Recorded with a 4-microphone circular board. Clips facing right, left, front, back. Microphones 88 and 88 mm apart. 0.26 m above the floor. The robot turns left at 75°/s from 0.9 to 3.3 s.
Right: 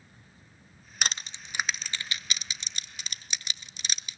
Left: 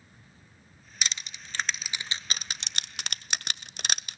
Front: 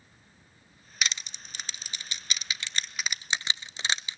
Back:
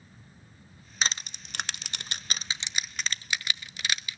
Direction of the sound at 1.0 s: 125° right.